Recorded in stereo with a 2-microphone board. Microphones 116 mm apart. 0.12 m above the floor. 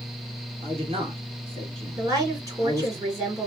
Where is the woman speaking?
30° right (ahead or behind), 1.9 m.